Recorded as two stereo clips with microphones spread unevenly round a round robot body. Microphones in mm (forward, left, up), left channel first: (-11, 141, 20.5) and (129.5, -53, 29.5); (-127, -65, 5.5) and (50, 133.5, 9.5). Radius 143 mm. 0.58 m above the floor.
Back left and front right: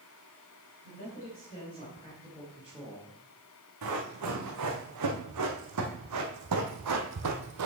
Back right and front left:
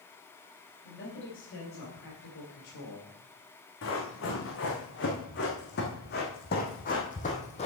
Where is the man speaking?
175° right, 4 m; by 3.1 s 120° right, 2 m.